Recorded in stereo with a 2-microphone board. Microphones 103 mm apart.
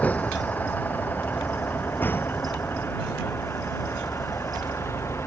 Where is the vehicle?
15° left (ahead or behind); by 5.3 s 25° left (ahead or behind).